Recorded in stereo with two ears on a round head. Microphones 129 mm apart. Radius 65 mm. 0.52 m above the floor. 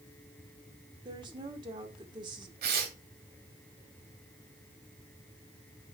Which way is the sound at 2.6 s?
75° right (ahead or behind).